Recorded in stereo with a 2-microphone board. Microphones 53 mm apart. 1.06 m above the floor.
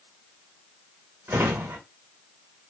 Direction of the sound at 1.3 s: 50° right (ahead or behind).